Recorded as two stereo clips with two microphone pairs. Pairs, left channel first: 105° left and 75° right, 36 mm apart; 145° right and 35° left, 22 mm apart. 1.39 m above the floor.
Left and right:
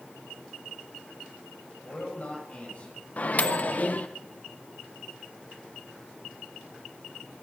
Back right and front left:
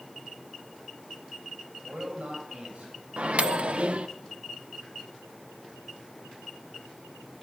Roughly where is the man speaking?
Ahead left.